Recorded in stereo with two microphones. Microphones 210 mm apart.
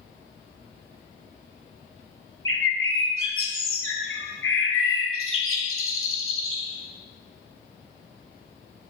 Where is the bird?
80° left, 1.0 m.